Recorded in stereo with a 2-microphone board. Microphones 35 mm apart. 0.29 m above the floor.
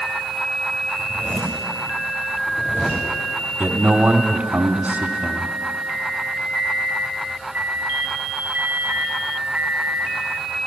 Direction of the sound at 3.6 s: 45° right (ahead or behind).